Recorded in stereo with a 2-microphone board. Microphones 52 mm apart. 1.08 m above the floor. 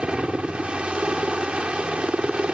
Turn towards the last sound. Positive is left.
turn(degrees=-20)  # may be behind; listen again after turning